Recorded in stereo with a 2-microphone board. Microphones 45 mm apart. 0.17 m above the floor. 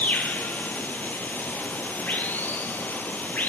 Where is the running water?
40° left (ahead or behind), 1.5 m.